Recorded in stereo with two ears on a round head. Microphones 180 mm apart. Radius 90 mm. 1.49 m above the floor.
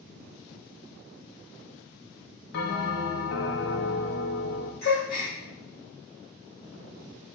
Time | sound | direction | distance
2.5 | a bell | 55° left (ahead or behind) | 0.5 m
4.8 | a gasp | 50° left (ahead or behind) | 1.7 m